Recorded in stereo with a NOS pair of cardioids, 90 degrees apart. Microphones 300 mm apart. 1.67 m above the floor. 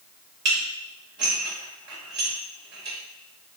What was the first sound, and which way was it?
Dishes clattering, 40° right.